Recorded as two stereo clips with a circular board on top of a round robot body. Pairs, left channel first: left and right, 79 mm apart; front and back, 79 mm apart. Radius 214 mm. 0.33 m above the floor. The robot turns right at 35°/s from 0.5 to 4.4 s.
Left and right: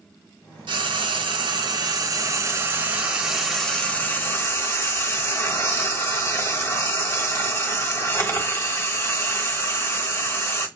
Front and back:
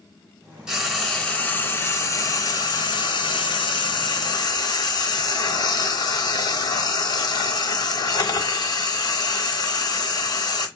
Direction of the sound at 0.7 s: 100° right.